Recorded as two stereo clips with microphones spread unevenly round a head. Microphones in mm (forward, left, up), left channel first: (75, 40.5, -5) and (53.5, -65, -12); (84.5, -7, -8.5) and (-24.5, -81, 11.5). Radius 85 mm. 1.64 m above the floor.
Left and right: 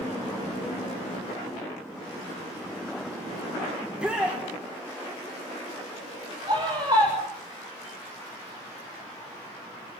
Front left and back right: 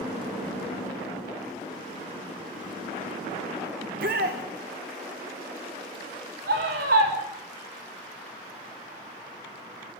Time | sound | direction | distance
3.8 | a shout | 175° left | 1.8 m
6.5 | a scream | 170° right | 7 m